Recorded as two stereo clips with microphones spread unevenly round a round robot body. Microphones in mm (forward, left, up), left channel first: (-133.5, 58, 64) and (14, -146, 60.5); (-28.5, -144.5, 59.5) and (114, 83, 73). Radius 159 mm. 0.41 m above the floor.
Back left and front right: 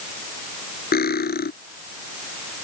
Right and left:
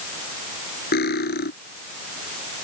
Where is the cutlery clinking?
Straight behind.